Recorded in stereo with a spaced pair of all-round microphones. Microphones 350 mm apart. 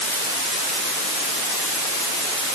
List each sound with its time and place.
Only background noise.